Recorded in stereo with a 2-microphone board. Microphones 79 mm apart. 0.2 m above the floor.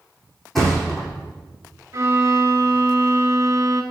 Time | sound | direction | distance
0.6 | a thud | 5° left (ahead or behind) | 3 m
1.9 | a violin | 45° right (ahead or behind) | 0.9 m